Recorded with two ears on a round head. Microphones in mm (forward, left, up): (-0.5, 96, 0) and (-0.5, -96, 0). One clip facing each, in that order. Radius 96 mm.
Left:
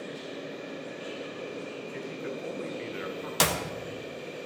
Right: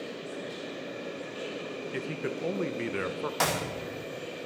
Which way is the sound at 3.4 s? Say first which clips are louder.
Left 2 dB; 45° left (ahead or behind).